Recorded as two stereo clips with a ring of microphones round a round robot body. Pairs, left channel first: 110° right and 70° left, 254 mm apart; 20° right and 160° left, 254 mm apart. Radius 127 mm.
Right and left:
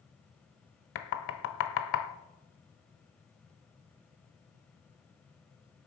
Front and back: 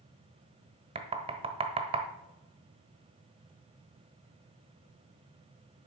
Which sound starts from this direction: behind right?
Knocking, at 0.9 s.